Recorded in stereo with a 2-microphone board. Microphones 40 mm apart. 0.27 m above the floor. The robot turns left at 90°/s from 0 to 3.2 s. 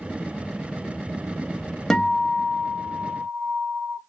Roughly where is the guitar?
Ahead left.